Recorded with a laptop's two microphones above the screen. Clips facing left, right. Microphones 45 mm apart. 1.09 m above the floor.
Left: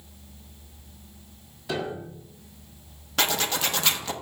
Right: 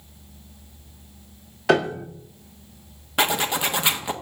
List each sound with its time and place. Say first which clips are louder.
1.7 s a piano: right 10 dB; 75° right (ahead or behind), 1.1 m
3.2 s a zipper: right 3 dB; 20° right (ahead or behind), 1.2 m